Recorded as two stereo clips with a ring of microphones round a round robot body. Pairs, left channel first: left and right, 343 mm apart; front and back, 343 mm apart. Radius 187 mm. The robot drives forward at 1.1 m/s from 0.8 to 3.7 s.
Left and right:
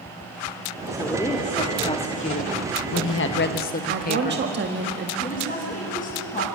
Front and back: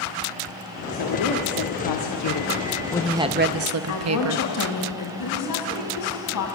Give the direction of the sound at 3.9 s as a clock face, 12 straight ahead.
1 o'clock.